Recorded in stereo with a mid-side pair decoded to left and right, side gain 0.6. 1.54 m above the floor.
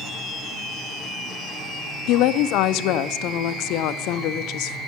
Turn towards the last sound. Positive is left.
turn(degrees=70)